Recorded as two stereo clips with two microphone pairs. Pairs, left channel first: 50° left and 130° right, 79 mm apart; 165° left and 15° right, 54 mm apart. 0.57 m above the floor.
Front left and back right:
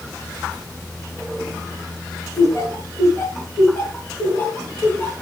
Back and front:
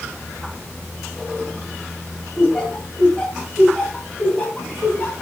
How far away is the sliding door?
I don't hear a sliding door.